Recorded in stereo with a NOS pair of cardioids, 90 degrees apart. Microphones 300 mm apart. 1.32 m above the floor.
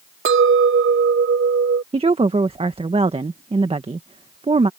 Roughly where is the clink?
Ahead right.